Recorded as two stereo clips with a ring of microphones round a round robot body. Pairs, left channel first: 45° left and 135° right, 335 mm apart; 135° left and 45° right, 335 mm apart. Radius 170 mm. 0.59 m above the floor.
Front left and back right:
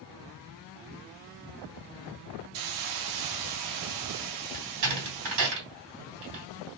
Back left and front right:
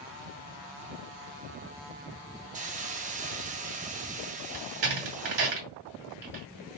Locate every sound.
2.5 s a hiss: 110° right, 0.6 m
4.5 s a door slam: 100° right, 1.7 m